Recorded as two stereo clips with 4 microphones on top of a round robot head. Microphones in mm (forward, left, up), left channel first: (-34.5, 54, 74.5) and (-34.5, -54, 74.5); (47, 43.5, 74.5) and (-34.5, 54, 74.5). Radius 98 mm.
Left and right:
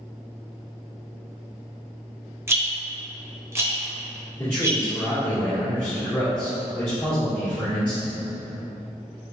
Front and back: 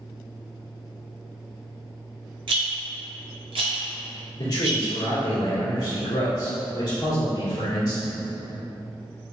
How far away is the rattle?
About 0.9 m.